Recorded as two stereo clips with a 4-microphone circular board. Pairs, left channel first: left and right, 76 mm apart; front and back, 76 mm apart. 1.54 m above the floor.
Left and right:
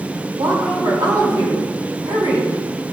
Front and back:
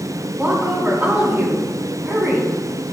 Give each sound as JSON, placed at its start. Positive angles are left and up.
{"t": 0.4, "sound": "a woman speaking", "azimuth_deg": -110, "distance_m": 4.0}